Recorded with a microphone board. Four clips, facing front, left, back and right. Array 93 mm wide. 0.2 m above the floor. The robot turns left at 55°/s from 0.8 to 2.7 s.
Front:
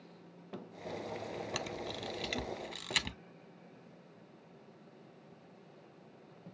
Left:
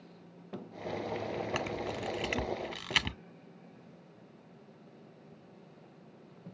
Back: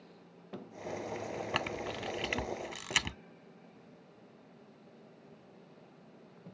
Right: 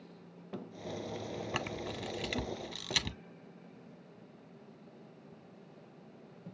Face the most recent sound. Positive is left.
turn(degrees=115)